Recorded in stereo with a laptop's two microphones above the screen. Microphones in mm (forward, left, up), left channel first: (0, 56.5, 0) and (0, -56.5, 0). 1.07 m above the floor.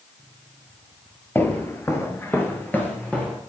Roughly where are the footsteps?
Centre.